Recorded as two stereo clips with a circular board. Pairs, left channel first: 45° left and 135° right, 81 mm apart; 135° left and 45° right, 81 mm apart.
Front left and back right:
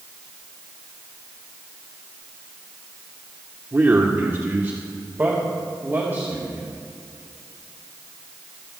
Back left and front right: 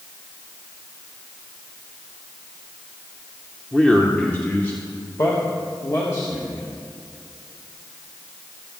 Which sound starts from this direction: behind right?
A man speaking, at 3.7 s.